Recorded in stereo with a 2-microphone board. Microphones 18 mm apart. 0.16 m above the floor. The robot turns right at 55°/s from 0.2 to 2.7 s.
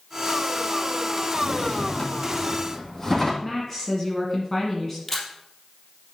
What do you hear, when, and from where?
1.3 s a drawer: 90° left, 2.5 m; by 3.3 s 165° left, 2.5 m
3.4 s a woman speaking: 10° left (ahead or behind), 1.8 m
5.1 s a camera shutter: 20° left (ahead or behind), 3 m